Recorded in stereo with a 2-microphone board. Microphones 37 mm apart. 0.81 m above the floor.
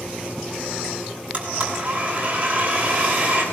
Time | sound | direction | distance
1.3 | a blender | 30° right (ahead or behind) | 8 m